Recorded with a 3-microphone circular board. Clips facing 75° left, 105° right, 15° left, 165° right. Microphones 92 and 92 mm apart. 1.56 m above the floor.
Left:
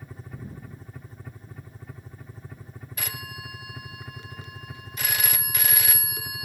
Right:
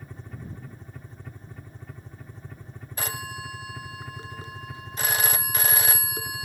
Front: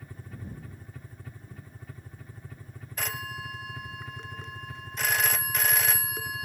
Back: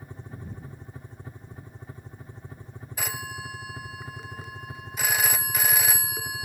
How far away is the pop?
I don't hear a pop.